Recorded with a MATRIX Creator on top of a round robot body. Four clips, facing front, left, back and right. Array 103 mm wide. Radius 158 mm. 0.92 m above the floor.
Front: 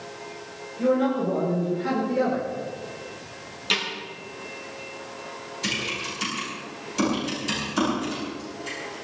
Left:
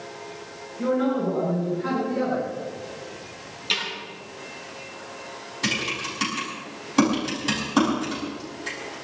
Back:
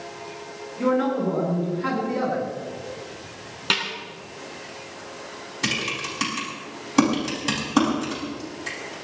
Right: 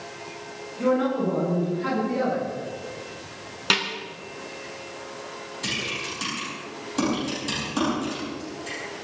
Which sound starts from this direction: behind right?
A snare drum, at 3.7 s.